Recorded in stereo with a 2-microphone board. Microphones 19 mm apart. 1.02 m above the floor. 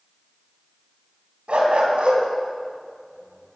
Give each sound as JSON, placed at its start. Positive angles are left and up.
{"t": 1.5, "sound": "a dog barking", "side_deg": -70, "distance_m": 3.0}